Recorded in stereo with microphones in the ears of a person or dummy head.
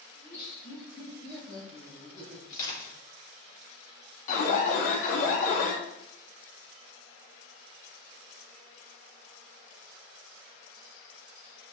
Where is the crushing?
25° left (ahead or behind), 3.5 m.